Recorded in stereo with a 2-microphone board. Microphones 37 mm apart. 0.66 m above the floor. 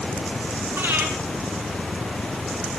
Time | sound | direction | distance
0.8 | breathing | 80° right | 6 m